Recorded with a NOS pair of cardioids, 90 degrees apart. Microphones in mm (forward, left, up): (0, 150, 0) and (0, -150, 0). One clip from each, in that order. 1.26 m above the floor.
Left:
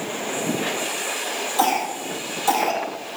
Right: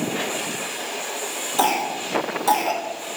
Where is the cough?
15° right, 2 m.